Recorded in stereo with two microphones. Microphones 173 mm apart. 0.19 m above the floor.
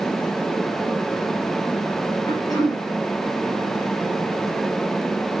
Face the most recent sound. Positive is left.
turn(degrees=20)  # may be behind; listen again after turning